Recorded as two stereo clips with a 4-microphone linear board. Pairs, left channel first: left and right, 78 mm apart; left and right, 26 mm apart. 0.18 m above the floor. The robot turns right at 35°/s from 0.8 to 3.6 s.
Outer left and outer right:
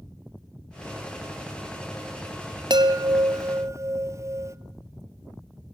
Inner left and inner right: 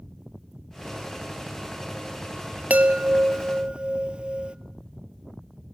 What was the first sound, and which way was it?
A chime, 70° right.